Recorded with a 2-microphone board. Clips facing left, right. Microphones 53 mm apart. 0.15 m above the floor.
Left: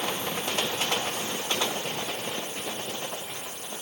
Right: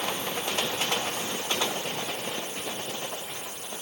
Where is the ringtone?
I don't hear a ringtone.